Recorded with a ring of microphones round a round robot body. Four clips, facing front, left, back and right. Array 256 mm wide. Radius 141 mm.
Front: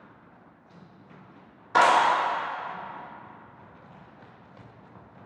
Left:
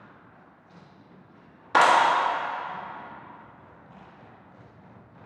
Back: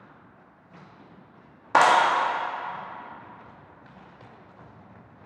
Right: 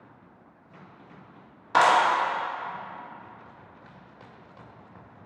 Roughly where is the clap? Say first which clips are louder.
Left 1 dB, back 1 dB; behind.